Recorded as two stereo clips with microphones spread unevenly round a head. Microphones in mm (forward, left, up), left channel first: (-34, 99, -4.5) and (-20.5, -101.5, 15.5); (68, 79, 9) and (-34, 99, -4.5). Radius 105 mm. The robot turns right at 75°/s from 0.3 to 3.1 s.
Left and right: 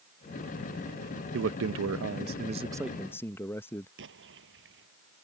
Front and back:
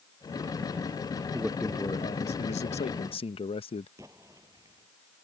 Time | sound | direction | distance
1.3 | a man speaking | 115° right | ?
4.0 | an explosion | 115° right | ?